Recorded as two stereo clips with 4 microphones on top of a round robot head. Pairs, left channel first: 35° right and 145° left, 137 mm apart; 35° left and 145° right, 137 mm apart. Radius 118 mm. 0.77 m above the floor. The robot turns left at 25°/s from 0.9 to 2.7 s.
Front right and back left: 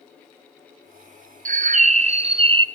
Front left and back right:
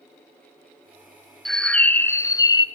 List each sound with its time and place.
1.4 s a bird: 120° left, 0.5 m; by 2.6 s 90° left, 0.5 m